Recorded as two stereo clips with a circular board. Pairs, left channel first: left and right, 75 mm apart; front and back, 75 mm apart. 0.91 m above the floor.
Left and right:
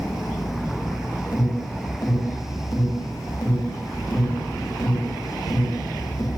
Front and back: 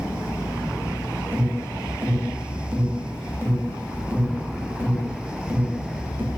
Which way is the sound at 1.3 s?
115° left.